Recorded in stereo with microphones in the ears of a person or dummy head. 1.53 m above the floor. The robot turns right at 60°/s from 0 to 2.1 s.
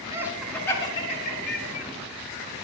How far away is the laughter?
About 4 m.